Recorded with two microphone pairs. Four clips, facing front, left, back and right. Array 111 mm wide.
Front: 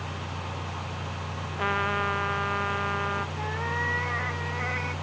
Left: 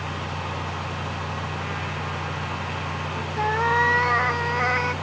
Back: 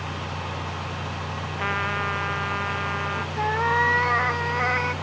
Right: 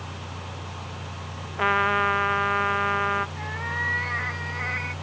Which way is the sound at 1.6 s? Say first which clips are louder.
Right 8 dB, even; 90° right.